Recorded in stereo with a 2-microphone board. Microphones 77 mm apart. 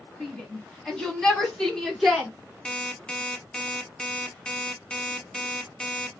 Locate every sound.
0.2 s a shout: 15° left (ahead or behind), 1.1 m; by 2.3 s 5° left (ahead or behind), 1.5 m
2.6 s an alarm clock: 15° left (ahead or behind), 0.7 m